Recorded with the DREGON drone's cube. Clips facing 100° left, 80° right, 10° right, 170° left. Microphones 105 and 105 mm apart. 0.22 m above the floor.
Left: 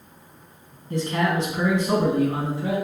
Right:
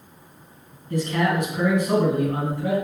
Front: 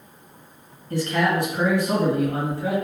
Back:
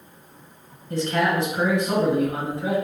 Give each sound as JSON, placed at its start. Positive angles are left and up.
{"t": 0.9, "sound": "a man speaking", "azimuth_deg": 125, "distance_m": 1.7}